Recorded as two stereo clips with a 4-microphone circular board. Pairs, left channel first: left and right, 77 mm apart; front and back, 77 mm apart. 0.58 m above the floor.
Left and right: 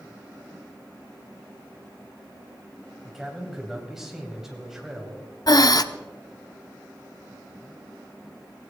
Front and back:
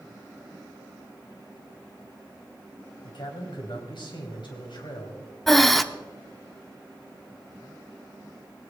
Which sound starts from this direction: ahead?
A man speaking, at 3.0 s.